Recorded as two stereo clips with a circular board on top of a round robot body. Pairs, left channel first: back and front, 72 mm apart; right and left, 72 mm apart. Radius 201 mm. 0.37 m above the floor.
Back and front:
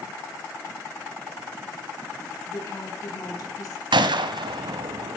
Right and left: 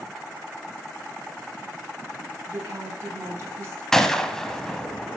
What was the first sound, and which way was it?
A woman speaking, 145° left.